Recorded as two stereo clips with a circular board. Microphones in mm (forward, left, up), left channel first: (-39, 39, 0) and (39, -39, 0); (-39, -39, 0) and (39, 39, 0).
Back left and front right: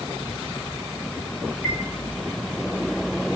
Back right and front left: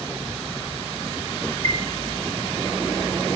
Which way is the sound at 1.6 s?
120° right.